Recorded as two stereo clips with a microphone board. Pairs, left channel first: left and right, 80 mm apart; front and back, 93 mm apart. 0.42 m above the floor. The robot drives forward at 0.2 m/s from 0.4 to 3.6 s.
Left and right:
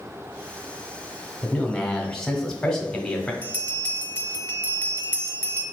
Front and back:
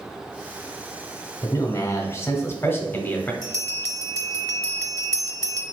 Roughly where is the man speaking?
Ahead.